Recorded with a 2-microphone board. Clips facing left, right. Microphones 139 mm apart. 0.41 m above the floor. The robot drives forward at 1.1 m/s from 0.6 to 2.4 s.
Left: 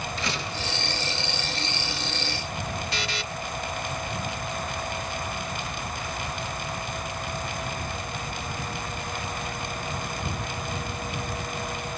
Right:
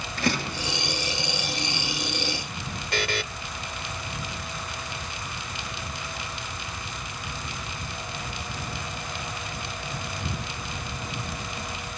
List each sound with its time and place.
0.2 s a door slam: 55° right (ahead or behind), 5.5 m
2.9 s a buzzer: 50° right (ahead or behind), 0.7 m